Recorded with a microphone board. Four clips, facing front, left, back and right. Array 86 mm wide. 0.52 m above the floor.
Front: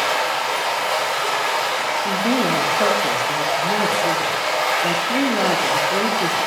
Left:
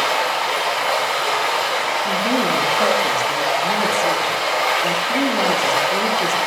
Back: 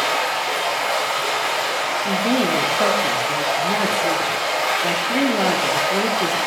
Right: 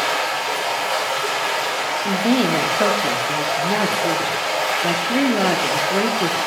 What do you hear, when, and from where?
0.0 s running water: 80° left, 3.5 m
2.0 s a woman speaking: 95° right, 0.7 m